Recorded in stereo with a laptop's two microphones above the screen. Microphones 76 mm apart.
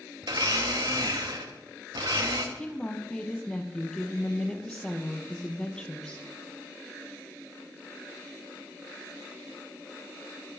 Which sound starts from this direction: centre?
A woman speaking, at 2.5 s.